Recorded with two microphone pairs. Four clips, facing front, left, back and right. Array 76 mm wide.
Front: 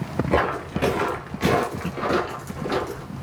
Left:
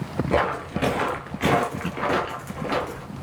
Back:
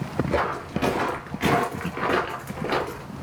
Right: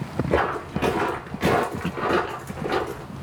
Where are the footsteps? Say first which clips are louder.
Even, front 4 dB; 25° left, 1.2 m; by 3.0 s 165° left, 1.5 m.